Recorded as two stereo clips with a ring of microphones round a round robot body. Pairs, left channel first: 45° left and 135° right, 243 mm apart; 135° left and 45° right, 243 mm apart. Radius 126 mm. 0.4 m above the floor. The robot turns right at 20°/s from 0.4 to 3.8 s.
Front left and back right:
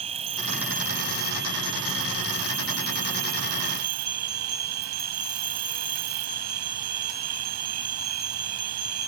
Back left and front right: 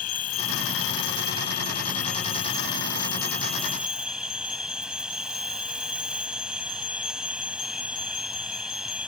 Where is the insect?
160° left; by 9.1 s 130° right.